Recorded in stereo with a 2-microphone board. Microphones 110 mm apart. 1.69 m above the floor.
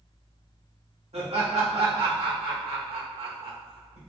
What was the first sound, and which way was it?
Laughter, 70° right (ahead or behind).